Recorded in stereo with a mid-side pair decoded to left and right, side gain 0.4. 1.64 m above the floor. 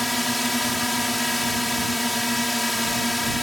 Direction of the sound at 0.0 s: 5° left.